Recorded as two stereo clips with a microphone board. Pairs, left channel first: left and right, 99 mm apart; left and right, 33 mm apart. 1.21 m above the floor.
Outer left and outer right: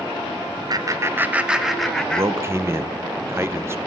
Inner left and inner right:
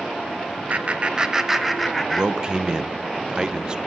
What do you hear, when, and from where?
0.7 s laughter: 45° right (ahead or behind), 0.8 m; by 2.8 s 15° left (ahead or behind), 1.5 m
2.1 s a man speaking: 25° right (ahead or behind), 0.6 m